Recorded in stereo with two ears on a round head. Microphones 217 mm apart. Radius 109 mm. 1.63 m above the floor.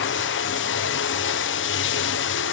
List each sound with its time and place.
0.0 s running water: 55° left (ahead or behind), 0.8 m